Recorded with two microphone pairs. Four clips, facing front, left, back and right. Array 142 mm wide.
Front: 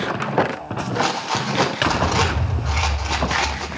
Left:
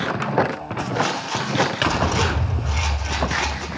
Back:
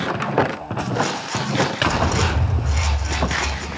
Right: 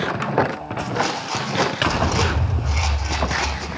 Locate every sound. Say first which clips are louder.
0.9 s a rattle: even, front 3 dB; 20° right, 5 m